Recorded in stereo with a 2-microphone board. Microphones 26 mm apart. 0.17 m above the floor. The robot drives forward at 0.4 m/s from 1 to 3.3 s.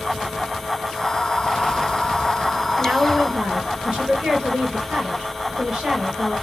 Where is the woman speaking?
35° right (ahead or behind), 3.5 m.